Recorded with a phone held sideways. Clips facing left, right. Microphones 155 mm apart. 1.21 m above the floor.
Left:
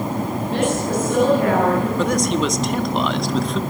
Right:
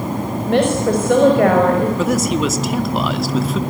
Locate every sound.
0.5 s a woman speaking: 75° right (ahead or behind), 5.5 m
2.0 s a man speaking: 5° right (ahead or behind), 1.9 m